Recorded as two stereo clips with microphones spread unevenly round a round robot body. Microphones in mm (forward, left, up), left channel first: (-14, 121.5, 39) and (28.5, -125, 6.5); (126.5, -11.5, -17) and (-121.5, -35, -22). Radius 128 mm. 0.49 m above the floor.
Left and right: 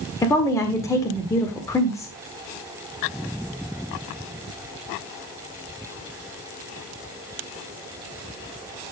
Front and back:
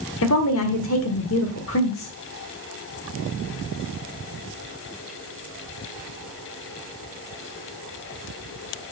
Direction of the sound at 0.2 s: 20° left.